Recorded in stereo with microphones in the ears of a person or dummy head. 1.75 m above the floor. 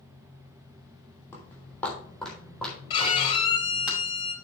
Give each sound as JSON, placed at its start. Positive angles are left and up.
{"t": 1.3, "sound": "footsteps", "side_deg": 15, "distance_m": 3.0}
{"t": 2.9, "sound": "a violin", "side_deg": 30, "distance_m": 1.7}